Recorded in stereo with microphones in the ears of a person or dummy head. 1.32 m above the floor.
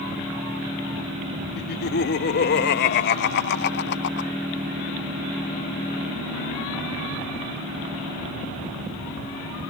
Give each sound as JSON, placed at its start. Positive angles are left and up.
{"t": 1.6, "sound": "laughter", "side_deg": 55}